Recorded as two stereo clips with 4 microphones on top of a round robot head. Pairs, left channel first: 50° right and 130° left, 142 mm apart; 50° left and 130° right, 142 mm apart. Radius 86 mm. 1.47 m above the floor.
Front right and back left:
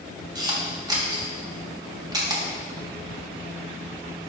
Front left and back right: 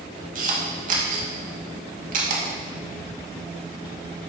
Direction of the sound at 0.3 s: 165° right.